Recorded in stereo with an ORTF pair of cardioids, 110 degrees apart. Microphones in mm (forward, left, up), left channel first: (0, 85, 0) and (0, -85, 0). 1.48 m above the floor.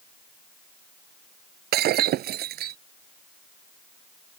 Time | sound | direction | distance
1.7 | breaking glass | 70° right | ?